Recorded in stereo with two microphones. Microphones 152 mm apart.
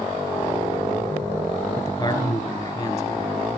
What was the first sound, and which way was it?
A man speaking, 20° left (ahead or behind).